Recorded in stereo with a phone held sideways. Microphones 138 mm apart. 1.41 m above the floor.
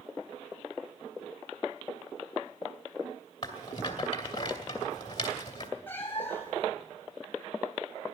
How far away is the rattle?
About 2.5 m.